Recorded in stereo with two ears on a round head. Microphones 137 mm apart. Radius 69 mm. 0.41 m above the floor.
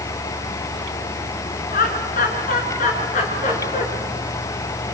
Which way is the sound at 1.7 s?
60° left (ahead or behind).